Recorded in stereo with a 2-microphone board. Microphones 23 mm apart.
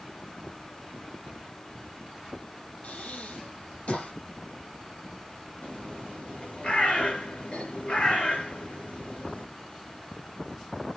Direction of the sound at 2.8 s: 85° left.